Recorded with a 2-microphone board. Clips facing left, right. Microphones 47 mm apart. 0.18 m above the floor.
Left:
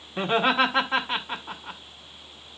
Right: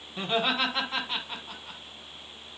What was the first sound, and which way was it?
Laughter, 30° left (ahead or behind).